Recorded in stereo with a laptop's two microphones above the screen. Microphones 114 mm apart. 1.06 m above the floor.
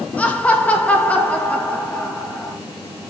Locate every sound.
0.2 s laughter: 15° left (ahead or behind), 1.6 m